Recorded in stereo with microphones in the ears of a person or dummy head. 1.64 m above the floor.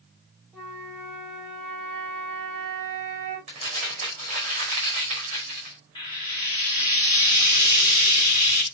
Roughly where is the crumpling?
Right.